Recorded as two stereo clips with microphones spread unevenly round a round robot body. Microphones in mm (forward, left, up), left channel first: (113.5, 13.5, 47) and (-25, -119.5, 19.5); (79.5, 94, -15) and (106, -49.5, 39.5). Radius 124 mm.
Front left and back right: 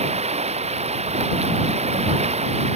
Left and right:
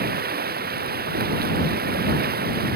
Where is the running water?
80° right.